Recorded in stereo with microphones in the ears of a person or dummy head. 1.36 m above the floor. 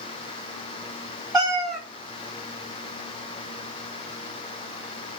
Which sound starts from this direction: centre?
A cat meowing, at 1.3 s.